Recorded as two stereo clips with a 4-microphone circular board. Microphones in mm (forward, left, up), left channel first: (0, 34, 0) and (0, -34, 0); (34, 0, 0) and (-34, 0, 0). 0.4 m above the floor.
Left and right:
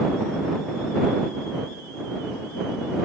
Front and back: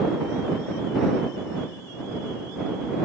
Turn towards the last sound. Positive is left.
No sound to turn to.